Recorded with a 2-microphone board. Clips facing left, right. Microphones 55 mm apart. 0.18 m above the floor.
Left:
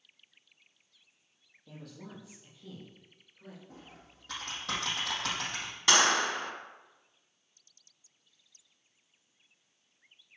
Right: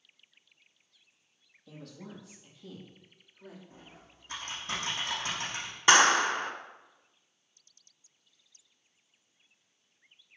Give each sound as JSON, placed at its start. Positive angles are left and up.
{"t": 1.7, "sound": "a woman speaking", "side_deg": 10, "distance_m": 5.5}
{"t": 3.7, "sound": "typing on a keyboard", "side_deg": 80, "distance_m": 5.5}
{"t": 5.9, "sound": "a clap", "side_deg": -25, "distance_m": 1.5}